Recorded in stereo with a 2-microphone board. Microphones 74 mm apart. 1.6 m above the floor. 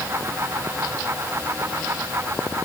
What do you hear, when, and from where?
Only background noise.